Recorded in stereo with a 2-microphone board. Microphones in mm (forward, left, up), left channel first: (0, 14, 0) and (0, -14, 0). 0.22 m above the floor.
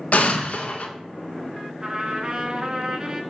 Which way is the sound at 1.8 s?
30° right (ahead or behind).